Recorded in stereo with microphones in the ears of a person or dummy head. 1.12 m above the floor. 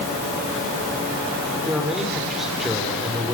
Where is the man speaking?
5° right (ahead or behind), 4 m.